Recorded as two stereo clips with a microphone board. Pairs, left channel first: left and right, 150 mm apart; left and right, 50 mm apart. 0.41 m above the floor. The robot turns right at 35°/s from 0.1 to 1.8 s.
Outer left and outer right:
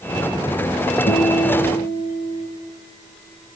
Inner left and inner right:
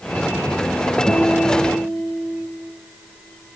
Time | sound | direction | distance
1.1 | a guitar | 70° left (ahead or behind) | 1.5 m